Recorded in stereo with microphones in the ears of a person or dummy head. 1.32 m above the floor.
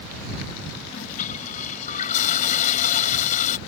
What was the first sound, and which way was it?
A toilet flushing, 35° left (ahead or behind).